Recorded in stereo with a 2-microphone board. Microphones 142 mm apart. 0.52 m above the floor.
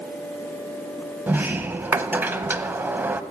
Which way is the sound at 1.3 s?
15° right (ahead or behind).